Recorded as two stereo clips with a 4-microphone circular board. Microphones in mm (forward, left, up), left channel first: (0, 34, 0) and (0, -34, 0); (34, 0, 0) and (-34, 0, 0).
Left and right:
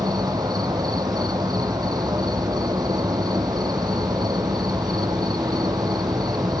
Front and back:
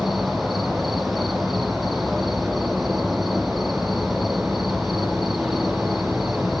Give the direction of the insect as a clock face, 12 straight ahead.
3 o'clock.